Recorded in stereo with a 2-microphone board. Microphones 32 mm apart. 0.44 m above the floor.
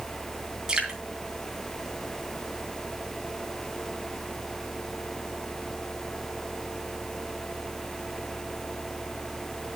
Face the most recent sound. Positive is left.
turn(degrees=-20)  # may be behind; listen again after turning